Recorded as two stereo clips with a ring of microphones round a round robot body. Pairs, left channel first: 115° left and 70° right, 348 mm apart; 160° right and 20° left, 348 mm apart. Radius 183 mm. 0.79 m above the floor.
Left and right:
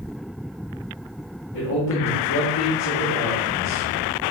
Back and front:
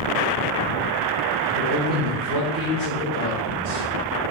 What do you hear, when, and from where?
1.5 s a man speaking: 75° left, 3.5 m